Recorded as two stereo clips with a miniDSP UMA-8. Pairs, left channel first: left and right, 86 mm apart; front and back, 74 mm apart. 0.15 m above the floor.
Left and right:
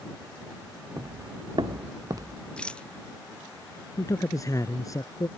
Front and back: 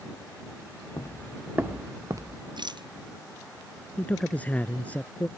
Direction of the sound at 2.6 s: 170° left.